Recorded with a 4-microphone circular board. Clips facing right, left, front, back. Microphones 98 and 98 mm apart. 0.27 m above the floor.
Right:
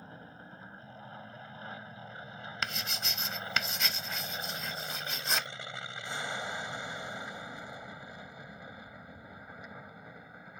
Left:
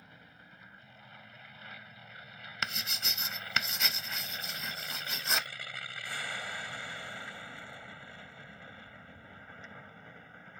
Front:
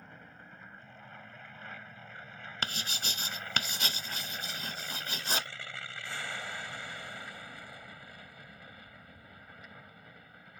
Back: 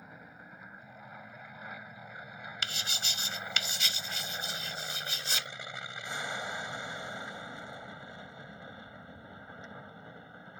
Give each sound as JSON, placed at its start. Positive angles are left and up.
{"t": 0.0, "sound": "an aircraft", "azimuth_deg": -105}
{"t": 2.6, "sound": "writing", "azimuth_deg": 0}